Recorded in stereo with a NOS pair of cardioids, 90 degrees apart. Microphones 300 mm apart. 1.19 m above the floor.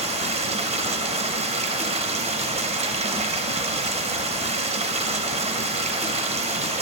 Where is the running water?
20° right, 0.8 m.